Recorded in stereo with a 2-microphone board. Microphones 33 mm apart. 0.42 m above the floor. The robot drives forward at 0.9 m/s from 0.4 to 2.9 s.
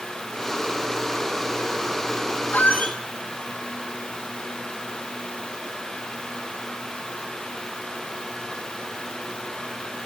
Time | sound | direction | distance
2.5 | a squeak | 70° left (ahead or behind) | 1.2 m